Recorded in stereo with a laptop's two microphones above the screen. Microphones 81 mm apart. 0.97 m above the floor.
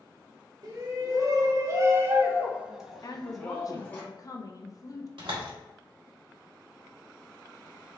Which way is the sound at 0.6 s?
45° right (ahead or behind).